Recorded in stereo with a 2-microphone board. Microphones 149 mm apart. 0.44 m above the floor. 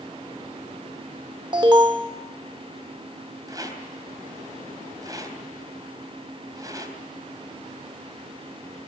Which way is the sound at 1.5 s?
30° right (ahead or behind).